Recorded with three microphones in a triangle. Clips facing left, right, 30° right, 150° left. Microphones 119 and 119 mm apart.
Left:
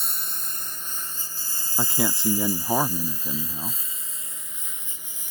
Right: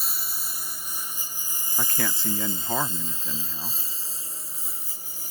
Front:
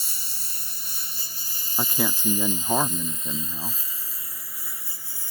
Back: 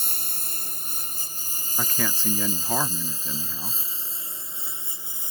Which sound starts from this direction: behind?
A lawn mower, at 0.0 s.